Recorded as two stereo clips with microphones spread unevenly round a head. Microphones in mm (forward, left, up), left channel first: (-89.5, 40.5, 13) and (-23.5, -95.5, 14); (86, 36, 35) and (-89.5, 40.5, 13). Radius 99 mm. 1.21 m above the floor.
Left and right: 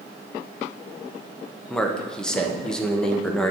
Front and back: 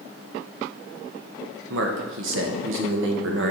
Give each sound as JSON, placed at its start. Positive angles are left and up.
{"t": 1.7, "sound": "a man speaking", "azimuth_deg": -160, "distance_m": 0.9}